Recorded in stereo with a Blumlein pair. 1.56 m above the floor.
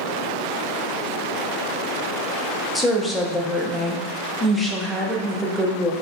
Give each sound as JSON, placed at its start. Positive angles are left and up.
{"t": 2.8, "sound": "a woman speaking", "azimuth_deg": 5, "distance_m": 0.6}